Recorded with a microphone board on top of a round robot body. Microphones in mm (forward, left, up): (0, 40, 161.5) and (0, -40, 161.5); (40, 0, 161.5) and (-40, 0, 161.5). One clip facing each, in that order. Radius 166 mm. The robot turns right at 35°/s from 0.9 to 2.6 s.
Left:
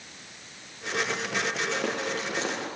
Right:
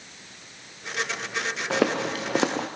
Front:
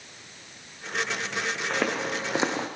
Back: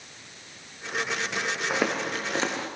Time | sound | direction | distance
1.7 | footsteps | 100° right | 2.5 m